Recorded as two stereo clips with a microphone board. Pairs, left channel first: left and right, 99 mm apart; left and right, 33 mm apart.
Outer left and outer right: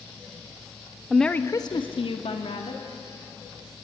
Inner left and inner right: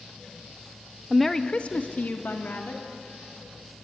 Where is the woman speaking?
5° right (ahead or behind), 1.0 m; by 2.8 s 80° left, 2.5 m.